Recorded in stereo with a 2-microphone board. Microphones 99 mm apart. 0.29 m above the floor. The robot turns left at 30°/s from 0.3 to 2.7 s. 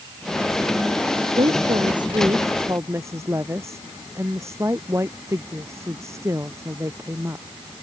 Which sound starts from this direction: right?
A woman speaking, at 1.4 s.